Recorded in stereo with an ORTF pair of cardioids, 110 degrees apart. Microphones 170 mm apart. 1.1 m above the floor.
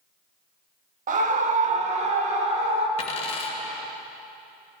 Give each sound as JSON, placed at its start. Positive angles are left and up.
{"t": 1.1, "sound": "a scream", "azimuth_deg": -50, "distance_m": 1.3}
{"t": 3.0, "sound": "a dropped coin", "azimuth_deg": 40, "distance_m": 1.9}